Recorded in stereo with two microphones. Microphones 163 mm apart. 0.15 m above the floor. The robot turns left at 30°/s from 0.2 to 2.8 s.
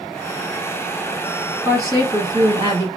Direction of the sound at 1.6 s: 35° right.